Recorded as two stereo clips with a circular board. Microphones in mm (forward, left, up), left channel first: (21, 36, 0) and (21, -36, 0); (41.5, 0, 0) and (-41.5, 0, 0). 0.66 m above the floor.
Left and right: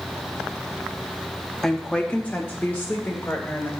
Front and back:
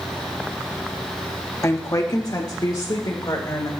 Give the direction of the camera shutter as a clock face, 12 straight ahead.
I don't hear a camera shutter.